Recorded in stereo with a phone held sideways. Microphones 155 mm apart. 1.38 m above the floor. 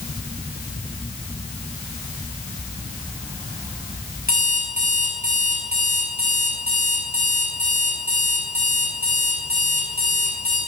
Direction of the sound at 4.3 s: 80° right.